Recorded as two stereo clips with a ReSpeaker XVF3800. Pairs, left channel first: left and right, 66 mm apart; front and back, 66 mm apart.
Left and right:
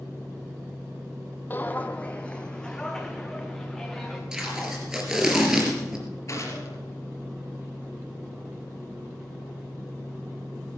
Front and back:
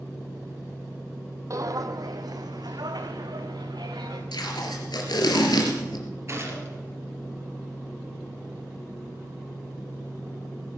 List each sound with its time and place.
1.5 s footsteps: 145° left, 0.9 m; by 4.2 s 175° left, 3 m
4.3 s tape being pulled: 10° right, 3.5 m
6.3 s a gunshot: 135° left, 4.5 m